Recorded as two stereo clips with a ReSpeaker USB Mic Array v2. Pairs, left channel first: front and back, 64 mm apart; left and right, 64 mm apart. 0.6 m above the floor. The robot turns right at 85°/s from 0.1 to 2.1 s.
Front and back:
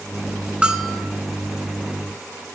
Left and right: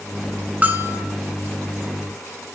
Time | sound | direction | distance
0.6 | a bell | 120° right | 1.2 m